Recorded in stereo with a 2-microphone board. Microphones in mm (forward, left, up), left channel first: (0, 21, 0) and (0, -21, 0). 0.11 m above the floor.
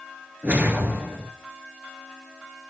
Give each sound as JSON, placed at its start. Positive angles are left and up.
{"t": 0.4, "sound": "a whoosh", "side_deg": -35, "distance_m": 0.7}